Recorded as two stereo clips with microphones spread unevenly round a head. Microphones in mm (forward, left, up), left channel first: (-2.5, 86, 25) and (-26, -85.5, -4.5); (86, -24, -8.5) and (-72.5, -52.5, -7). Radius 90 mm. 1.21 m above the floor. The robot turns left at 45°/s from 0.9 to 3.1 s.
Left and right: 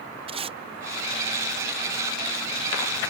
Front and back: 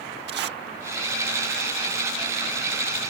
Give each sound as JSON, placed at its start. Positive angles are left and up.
{"t": 0.3, "sound": "tape being pulled", "azimuth_deg": -155}